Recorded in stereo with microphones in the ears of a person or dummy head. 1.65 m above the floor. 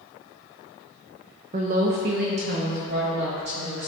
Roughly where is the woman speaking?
Right.